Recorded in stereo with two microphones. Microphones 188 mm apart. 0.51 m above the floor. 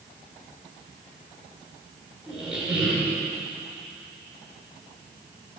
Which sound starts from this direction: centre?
A squeak, at 2.3 s.